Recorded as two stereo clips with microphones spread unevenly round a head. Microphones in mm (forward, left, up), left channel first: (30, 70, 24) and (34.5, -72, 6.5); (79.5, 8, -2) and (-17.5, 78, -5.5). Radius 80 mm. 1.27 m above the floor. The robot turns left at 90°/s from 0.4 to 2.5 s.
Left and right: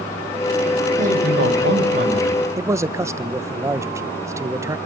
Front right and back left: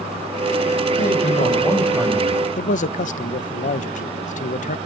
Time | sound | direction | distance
1.0 | a man speaking | 45° right | 6 m
2.6 | a man speaking | 20° right | 1.2 m